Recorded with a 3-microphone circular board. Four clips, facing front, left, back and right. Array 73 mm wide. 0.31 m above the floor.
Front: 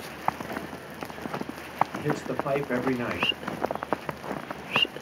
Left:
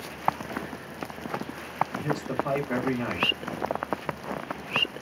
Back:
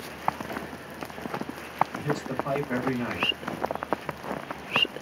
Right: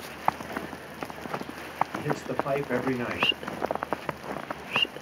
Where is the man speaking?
30° right, 1.2 m.